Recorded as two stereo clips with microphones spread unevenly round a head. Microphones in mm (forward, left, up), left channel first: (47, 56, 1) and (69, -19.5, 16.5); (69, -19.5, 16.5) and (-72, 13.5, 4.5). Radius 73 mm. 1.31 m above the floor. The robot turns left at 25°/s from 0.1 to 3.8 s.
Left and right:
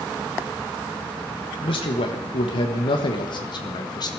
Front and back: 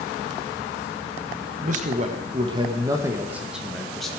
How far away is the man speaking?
About 1.5 m.